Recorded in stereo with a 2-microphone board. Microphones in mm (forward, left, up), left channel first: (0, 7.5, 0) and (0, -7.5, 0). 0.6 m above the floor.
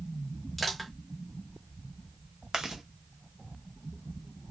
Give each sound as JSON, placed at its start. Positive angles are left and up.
{"t": 0.6, "sound": "crushing", "side_deg": 0, "distance_m": 1.2}
{"t": 2.5, "sound": "chewing", "side_deg": -50, "distance_m": 0.7}